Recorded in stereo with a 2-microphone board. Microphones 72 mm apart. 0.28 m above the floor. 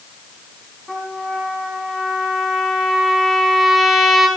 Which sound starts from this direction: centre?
A trumpet, at 0.9 s.